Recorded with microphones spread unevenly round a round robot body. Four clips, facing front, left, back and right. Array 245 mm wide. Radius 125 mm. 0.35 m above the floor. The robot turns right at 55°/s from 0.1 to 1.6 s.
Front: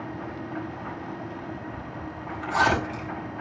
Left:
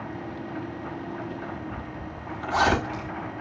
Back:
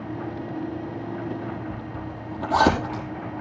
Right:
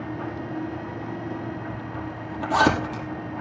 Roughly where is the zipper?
Behind right.